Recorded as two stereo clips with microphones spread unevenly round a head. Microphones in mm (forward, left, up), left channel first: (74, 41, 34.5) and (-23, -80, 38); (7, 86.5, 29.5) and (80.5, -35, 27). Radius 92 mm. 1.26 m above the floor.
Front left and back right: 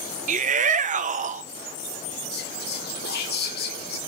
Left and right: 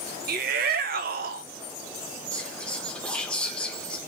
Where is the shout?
90° right, 0.8 m.